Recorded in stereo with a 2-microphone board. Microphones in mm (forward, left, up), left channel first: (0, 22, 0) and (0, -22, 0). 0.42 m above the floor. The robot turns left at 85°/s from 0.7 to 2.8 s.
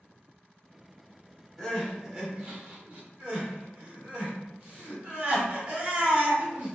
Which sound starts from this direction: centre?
Crying, at 1.6 s.